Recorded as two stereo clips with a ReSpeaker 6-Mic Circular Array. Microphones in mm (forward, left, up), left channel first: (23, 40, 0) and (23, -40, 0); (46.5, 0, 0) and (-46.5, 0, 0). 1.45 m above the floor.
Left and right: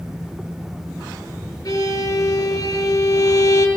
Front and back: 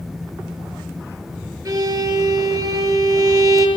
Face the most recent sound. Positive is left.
turn(degrees=125)